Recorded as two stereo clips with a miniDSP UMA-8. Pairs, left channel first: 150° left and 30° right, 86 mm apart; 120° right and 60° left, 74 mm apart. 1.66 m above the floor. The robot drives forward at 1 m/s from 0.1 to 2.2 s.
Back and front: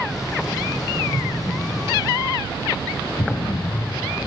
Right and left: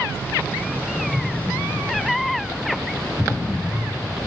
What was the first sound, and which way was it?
An explosion, 170° left.